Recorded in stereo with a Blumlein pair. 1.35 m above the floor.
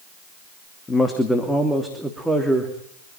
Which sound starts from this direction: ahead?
A man speaking, at 0.9 s.